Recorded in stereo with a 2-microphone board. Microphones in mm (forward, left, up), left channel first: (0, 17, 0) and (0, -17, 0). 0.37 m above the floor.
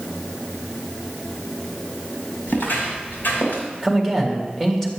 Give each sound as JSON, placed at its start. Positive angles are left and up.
{"t": 2.5, "sound": "footsteps", "side_deg": 85, "distance_m": 3.5}
{"t": 3.8, "sound": "a man speaking", "side_deg": 10, "distance_m": 2.0}